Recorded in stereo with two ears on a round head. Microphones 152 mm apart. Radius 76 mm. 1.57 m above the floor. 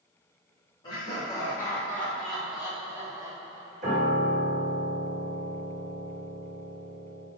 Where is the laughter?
25° left (ahead or behind), 1.8 m; by 4.0 s 30° right (ahead or behind), 1.6 m.